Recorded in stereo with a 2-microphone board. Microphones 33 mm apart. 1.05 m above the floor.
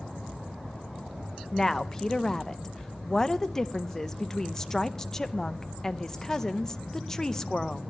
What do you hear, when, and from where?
1.5 s a woman speaking: 15° left (ahead or behind), 0.5 m